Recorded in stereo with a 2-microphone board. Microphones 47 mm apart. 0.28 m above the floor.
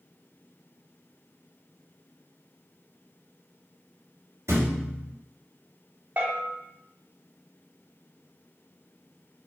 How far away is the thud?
About 1.7 m.